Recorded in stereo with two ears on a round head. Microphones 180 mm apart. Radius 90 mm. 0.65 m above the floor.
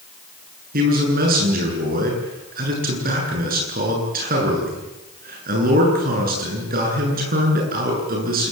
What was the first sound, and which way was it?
A man speaking, 45° right (ahead or behind).